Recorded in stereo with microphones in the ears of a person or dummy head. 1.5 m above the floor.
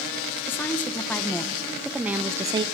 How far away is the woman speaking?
About 1.6 m.